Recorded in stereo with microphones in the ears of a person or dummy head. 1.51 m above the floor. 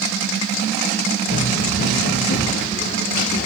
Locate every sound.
1.3 s running footsteps: 65° left (ahead or behind), 3.5 m; by 3.5 s 55° left (ahead or behind), 4.5 m